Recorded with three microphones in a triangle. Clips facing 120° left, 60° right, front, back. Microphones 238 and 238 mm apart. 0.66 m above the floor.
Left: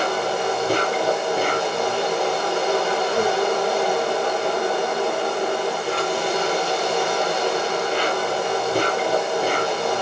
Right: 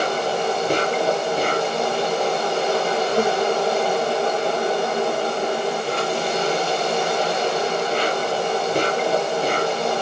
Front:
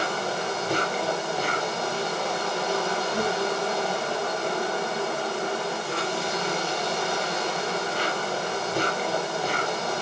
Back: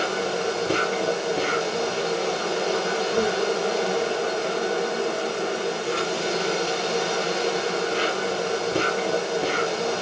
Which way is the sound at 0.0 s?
165° right.